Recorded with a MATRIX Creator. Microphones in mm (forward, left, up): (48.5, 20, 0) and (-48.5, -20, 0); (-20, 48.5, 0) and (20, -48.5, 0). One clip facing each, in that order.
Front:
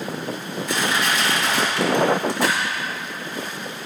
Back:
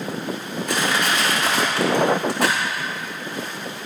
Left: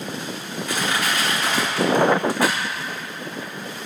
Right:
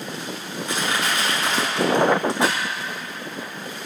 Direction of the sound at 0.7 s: 130° right.